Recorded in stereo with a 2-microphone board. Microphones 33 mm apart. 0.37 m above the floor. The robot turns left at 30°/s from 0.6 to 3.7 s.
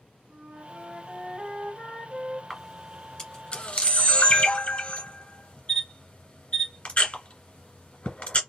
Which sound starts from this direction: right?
A flute, at 0.3 s.